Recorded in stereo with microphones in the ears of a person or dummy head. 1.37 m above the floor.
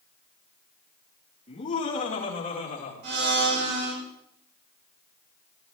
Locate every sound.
1.5 s laughter: 35° left (ahead or behind), 3 m; by 2.9 s 40° left (ahead or behind), 4 m
3.0 s a blender: 60° right (ahead or behind), 6 m